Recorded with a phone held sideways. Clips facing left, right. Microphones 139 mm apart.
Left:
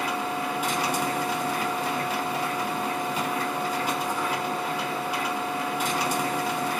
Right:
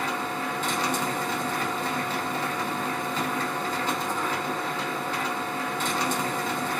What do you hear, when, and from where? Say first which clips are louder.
0.0 s a machine running: left 1 dB; 10° left (ahead or behind), 0.8 m